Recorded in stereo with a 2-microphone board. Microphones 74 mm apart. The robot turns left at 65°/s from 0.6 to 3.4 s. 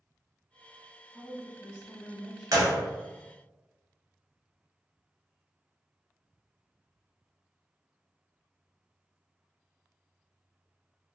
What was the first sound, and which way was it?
A woman speaking, 115° right.